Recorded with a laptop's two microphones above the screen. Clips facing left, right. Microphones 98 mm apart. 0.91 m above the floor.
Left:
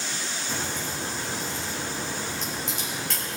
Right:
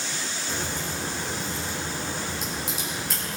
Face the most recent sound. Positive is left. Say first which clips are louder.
# right 1 dB
turn(degrees=-5)  # may be behind; listen again after turning